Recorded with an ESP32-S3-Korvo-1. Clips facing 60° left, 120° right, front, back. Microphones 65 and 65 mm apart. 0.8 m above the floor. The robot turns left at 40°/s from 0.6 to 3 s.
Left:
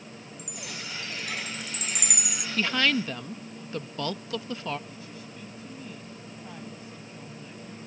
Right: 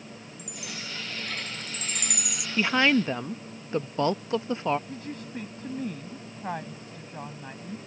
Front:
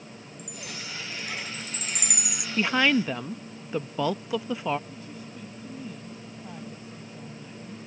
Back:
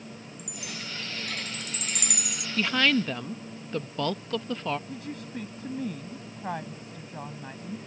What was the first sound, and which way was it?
A chime, 95° left.